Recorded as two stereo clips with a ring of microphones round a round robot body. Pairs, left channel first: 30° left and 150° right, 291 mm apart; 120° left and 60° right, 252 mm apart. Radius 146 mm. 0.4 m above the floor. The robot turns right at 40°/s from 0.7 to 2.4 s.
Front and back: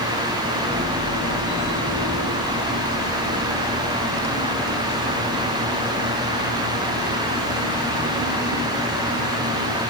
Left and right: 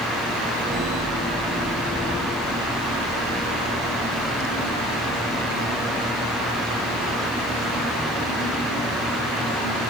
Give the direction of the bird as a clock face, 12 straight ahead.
No bird in this recording.